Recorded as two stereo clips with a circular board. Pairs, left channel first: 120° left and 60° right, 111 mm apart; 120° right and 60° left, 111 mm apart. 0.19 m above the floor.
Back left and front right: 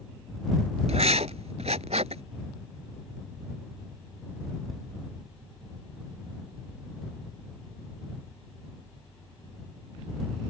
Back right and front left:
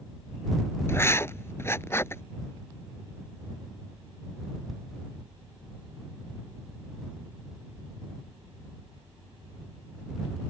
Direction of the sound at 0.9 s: 55° right.